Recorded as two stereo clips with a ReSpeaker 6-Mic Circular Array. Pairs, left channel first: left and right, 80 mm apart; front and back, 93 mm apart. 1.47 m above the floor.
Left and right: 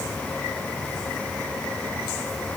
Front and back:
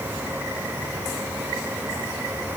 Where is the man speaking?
I don't hear a man speaking.